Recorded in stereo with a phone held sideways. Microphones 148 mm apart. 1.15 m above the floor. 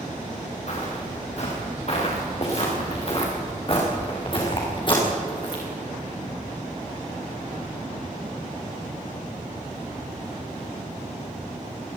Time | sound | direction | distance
0.7 | footsteps | 50° left (ahead or behind) | 8 m